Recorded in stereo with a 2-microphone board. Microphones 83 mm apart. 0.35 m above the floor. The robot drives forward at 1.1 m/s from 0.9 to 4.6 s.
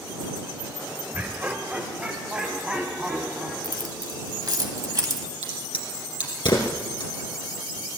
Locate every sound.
1.1 s laughter: 25° right (ahead or behind), 1.0 m; by 3.5 s 10° right (ahead or behind), 3 m
3.6 s keys jangling: 60° right (ahead or behind), 1.4 m; by 5.3 s 45° right (ahead or behind), 1.7 m
5.4 s a crack: 70° left (ahead or behind), 3.5 m